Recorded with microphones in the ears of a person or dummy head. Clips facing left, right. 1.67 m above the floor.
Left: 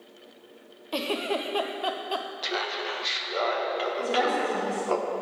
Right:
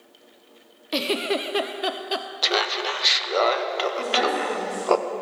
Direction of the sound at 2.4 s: 70° right (ahead or behind).